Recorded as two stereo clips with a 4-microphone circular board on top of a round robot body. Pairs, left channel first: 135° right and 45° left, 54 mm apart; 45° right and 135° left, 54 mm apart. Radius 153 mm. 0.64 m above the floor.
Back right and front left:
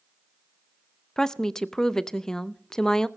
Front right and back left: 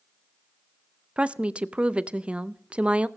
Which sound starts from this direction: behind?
A woman speaking, at 1.2 s.